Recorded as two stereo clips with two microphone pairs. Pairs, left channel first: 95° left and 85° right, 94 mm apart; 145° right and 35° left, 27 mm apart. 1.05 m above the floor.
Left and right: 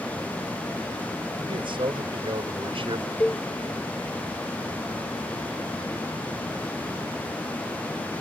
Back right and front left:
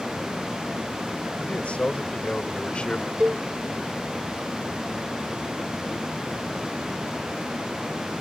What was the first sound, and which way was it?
A man speaking, 105° right.